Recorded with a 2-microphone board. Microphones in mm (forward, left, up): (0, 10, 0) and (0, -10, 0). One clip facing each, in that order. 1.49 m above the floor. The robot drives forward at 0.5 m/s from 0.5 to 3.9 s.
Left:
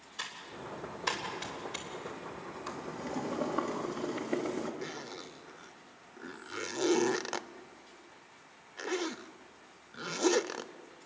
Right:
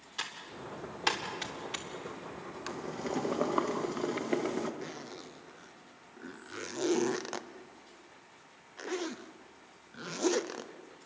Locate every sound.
0.2 s typing on a keyboard: 55° right (ahead or behind), 3 m; by 1.9 s 65° right (ahead or behind), 3 m
2.7 s boiling: 70° right (ahead or behind), 1.5 m; by 4.7 s 55° right (ahead or behind), 1.8 m
4.8 s a zipper: 10° left (ahead or behind), 0.5 m